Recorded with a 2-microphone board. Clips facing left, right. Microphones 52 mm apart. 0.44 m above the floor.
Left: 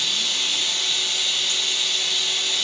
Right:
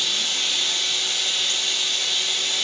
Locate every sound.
0.0 s running water: 40° right (ahead or behind), 6.5 m